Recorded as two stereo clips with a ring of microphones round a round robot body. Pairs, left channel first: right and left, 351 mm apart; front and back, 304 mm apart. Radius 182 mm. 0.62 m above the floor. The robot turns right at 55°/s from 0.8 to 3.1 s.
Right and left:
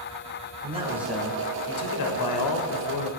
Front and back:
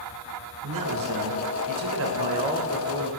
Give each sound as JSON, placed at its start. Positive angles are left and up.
{"t": 0.6, "sound": "a man speaking", "azimuth_deg": 165, "distance_m": 2.0}